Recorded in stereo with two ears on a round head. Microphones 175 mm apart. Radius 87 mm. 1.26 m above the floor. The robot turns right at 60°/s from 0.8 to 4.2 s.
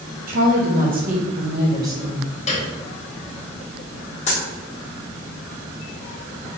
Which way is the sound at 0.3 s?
90° right.